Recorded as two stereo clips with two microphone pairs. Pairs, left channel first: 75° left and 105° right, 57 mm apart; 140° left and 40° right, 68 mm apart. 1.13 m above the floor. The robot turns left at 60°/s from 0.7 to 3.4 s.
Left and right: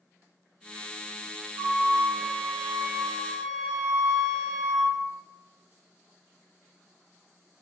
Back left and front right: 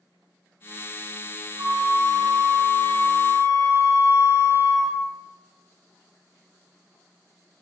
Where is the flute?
95° right, 1.8 m; by 5.0 s 155° left, 1.8 m.